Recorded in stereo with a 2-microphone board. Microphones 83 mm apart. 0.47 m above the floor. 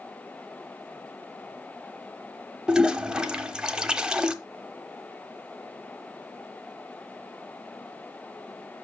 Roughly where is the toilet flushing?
Centre.